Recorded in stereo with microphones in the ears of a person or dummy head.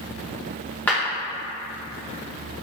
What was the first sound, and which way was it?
A clap, 10° left (ahead or behind).